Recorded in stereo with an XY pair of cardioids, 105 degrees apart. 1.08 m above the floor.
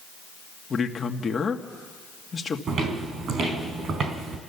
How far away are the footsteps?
About 3.5 m.